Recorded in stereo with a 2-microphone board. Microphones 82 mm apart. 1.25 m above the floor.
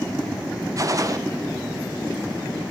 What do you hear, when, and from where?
0.8 s a gunshot: 45° right (ahead or behind), 0.5 m